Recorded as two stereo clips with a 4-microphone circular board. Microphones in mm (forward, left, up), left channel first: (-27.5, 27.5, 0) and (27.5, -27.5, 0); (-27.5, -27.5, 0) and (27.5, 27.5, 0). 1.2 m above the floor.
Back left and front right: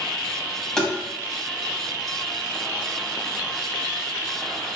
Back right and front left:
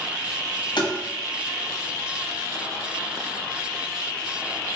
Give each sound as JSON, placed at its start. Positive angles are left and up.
{"t": 0.8, "sound": "tapping", "azimuth_deg": -140, "distance_m": 0.8}